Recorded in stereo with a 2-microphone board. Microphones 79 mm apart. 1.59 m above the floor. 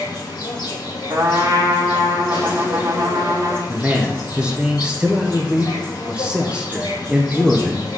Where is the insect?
75° left (ahead or behind), 2 m.